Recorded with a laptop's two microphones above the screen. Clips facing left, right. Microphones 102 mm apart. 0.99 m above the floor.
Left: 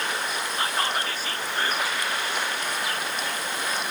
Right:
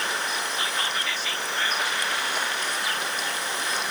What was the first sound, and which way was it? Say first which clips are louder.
Whispering: left 3 dB; 40° left (ahead or behind).